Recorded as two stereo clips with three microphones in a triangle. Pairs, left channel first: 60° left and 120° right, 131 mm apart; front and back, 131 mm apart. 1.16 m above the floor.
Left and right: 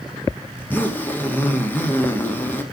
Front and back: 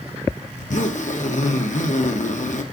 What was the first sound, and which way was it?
A zipper, 15° right.